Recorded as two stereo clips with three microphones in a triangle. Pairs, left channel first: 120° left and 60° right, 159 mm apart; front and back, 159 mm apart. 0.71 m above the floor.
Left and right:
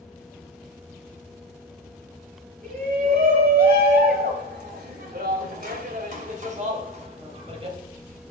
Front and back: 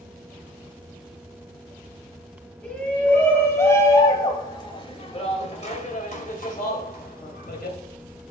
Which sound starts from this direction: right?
A shout, at 2.6 s.